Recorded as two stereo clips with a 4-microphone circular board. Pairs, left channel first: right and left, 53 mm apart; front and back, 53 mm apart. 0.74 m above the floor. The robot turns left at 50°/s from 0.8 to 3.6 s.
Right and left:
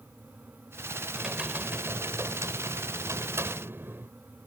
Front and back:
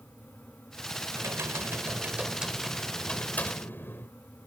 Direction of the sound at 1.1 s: 170° left.